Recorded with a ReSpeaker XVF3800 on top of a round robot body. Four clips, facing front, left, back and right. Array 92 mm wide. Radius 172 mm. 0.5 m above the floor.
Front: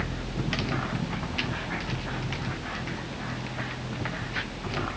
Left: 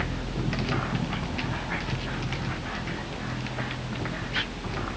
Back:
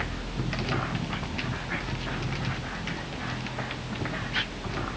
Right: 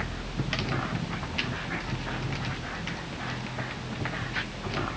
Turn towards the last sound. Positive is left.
No sound to turn to.